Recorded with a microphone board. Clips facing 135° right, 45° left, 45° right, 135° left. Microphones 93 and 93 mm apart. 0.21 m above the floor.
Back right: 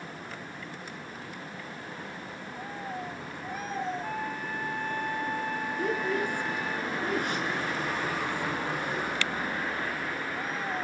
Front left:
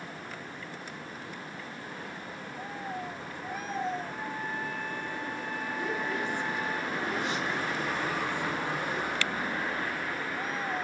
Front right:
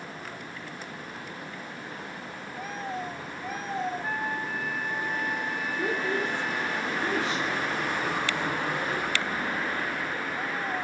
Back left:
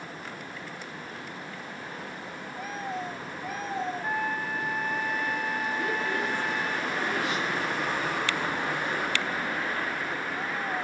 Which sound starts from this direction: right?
A woman speaking, at 5.8 s.